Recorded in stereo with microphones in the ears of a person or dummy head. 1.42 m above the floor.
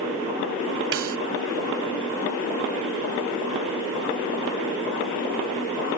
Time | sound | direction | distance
0.9 | a snare drum | 70° right (ahead or behind) | ?